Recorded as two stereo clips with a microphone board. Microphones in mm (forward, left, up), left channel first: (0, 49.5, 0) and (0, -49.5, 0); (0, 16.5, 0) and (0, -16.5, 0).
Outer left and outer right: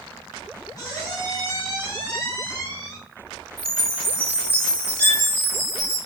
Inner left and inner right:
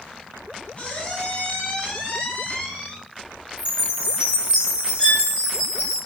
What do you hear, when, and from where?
0.8 s a squeak: 35° left (ahead or behind), 2 m
3.6 s a chime: 25° right (ahead or behind), 2 m
5.0 s a violin: 30° left (ahead or behind), 1.8 m